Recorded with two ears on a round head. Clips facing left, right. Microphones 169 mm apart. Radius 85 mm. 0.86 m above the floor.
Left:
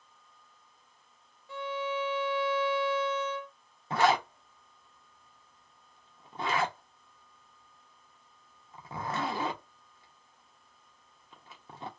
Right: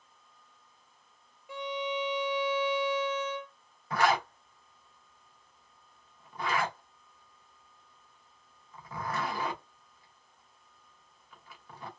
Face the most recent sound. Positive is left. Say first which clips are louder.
# left 2 dB
turn(degrees=20)  # may be behind; listen again after turning